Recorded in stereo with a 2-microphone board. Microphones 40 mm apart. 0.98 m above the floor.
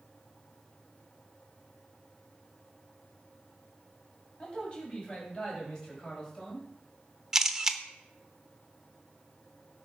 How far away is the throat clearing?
I don't hear throat clearing.